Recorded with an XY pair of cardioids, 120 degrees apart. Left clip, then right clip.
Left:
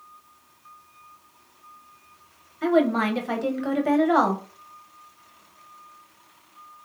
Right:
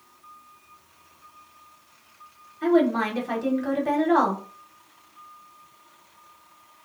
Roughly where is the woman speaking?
Ahead.